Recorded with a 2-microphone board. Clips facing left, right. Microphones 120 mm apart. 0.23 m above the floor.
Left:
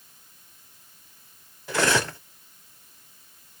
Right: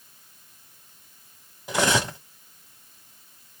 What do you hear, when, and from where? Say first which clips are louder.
1.7 s cutlery clinking: even; 15° right (ahead or behind), 0.6 m